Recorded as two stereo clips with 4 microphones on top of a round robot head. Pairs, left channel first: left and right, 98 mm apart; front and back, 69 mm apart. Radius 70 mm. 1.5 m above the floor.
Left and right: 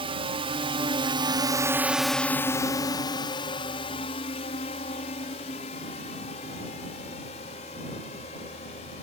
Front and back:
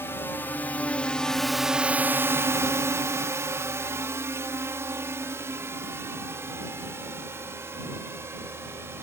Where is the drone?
65° right; by 9.0 s 125° left.